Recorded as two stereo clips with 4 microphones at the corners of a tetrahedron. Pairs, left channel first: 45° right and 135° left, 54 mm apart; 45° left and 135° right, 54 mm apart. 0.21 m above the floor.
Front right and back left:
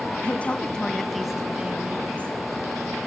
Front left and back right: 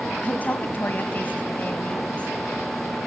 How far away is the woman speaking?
About 2 m.